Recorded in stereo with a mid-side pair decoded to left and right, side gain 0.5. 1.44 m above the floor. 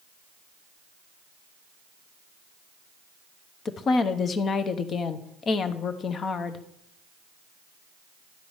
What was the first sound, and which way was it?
A woman speaking, 45° left.